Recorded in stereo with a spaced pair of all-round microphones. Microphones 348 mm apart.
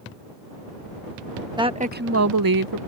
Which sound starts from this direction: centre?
A woman speaking, at 1.6 s.